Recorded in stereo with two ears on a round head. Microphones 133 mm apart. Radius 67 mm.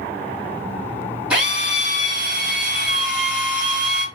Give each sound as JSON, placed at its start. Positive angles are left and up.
{"t": 1.3, "sound": "a drill", "side_deg": -5, "distance_m": 3.0}